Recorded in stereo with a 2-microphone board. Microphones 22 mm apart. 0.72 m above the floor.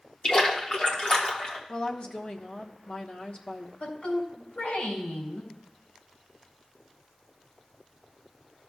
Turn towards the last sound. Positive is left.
turn(degrees=80)